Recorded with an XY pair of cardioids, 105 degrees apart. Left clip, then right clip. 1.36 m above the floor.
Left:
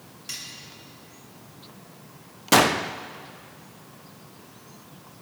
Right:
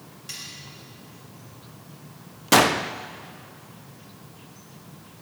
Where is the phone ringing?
I don't hear a phone ringing.